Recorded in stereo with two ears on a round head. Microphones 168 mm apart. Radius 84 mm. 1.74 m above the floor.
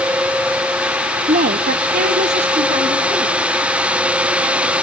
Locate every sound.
1.3 s a woman speaking: 35° right (ahead or behind), 0.7 m; by 3.4 s 25° right (ahead or behind), 2 m